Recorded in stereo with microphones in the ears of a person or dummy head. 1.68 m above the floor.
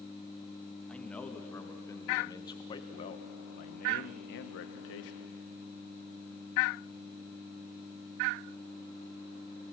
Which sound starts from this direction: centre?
A man speaking, at 0.9 s.